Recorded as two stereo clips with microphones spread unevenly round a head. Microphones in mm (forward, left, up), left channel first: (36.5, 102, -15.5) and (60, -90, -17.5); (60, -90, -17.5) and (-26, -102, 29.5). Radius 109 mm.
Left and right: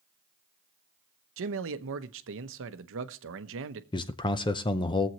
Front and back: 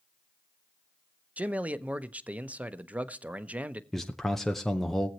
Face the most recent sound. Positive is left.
turn(degrees=45)